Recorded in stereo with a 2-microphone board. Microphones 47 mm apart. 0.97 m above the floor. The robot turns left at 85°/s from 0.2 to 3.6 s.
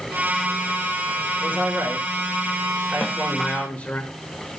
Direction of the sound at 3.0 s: 25° left (ahead or behind).